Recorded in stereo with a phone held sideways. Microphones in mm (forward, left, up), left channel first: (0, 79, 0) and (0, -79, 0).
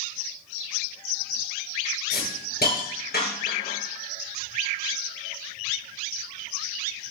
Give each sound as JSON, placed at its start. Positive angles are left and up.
{"t": 2.1, "sound": "a hiss", "side_deg": 85, "distance_m": 7.5}